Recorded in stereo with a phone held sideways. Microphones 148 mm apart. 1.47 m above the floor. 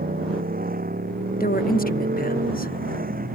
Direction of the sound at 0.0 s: 80° right.